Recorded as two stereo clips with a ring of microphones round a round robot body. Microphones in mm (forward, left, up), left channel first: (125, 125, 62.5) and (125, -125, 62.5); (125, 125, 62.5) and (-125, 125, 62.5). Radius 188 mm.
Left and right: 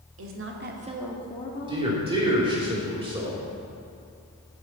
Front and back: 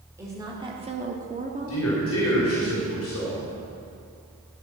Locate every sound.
0.2 s a woman speaking: 100° right, 1.5 m; by 2.7 s 110° left, 2 m
1.7 s a man speaking: 25° right, 2.5 m